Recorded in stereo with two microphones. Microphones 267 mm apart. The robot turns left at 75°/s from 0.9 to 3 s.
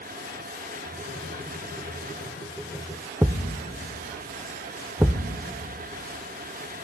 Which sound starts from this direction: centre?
A thud, at 3.2 s.